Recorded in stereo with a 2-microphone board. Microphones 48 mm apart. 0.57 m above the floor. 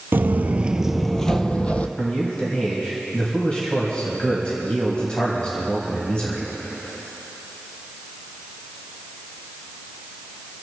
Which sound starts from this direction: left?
A man speaking, at 2.0 s.